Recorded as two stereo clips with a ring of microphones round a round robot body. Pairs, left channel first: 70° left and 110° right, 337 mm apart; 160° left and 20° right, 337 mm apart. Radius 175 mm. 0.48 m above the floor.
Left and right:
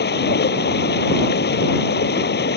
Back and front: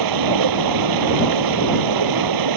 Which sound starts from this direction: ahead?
Running water, at 0.0 s.